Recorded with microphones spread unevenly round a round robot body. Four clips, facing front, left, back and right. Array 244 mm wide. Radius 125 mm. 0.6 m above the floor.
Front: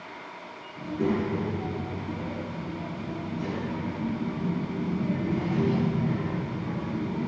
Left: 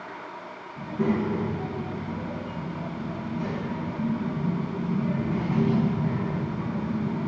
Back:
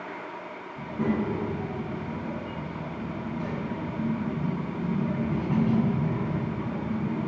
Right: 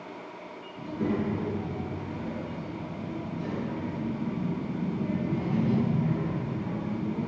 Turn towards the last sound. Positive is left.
turn(degrees=105)